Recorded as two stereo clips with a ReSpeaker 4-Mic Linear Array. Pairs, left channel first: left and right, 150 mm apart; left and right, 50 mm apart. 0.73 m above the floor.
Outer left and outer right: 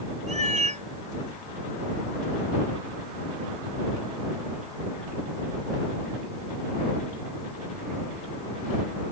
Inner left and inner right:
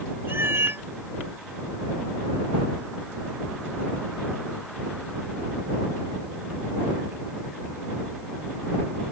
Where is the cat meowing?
55° right (ahead or behind).